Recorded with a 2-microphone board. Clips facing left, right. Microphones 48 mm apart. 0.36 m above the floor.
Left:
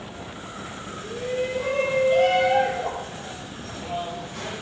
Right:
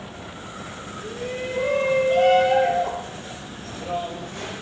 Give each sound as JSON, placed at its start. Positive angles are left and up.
{"t": 1.0, "sound": "a shout", "side_deg": -70, "distance_m": 4.0}